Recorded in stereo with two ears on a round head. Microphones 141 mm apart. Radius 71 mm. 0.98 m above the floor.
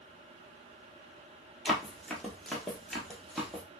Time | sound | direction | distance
1.6 | running footsteps | 5° left (ahead or behind) | 1.1 m